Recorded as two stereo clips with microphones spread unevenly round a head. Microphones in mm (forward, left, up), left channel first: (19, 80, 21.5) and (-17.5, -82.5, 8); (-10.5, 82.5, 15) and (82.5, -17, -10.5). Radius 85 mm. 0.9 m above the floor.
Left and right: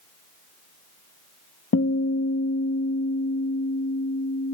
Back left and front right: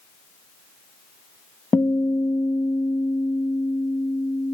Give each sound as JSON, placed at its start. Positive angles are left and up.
{"t": 1.7, "sound": "a guitar", "azimuth_deg": 60, "distance_m": 0.6}